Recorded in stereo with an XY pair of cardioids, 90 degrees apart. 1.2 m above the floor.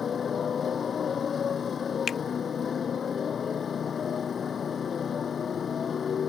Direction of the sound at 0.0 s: 50° left.